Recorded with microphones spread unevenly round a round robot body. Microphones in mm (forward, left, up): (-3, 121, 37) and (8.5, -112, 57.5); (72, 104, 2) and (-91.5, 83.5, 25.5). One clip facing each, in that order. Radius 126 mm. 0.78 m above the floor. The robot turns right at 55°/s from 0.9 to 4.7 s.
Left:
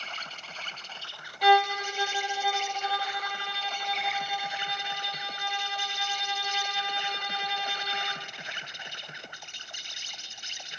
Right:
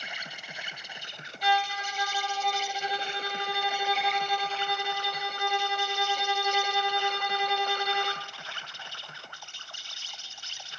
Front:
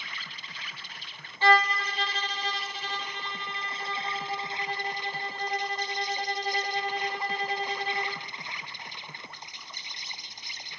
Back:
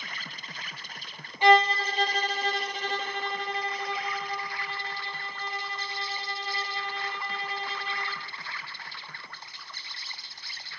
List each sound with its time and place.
0.0 s an insect: 165° right, 0.9 m; by 10.8 s 45° left, 0.9 m
1.4 s a violin: 120° left, 0.7 m; by 8.3 s 55° right, 0.7 m